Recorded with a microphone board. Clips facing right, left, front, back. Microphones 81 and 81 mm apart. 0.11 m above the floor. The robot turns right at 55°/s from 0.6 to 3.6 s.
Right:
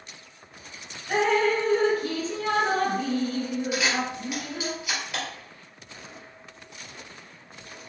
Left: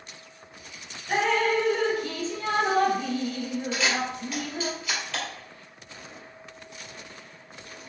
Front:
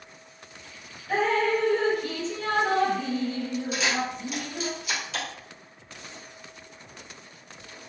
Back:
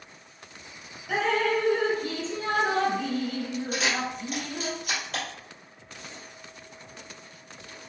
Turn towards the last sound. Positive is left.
turn(degrees=-160)